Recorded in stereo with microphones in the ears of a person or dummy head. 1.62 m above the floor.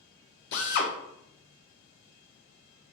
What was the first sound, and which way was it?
A drill, 60° left (ahead or behind).